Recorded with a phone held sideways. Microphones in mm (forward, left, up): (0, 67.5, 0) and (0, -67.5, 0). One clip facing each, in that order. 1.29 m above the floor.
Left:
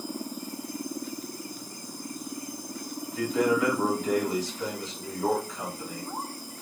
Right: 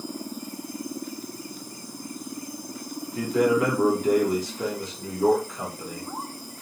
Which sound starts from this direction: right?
A man speaking, at 3.1 s.